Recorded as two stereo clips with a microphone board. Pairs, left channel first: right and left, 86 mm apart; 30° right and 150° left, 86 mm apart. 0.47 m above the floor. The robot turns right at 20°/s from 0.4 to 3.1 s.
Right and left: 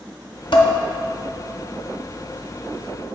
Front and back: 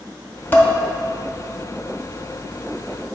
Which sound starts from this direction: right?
Dishes clattering, at 0.5 s.